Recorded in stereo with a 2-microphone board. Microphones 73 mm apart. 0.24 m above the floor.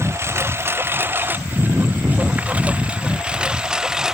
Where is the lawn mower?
35° right (ahead or behind); by 4.2 s 5° right (ahead or behind).